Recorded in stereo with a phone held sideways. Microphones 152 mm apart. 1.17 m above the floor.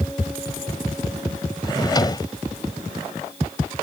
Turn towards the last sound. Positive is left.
turn(degrees=25)  # may be behind; listen again after turning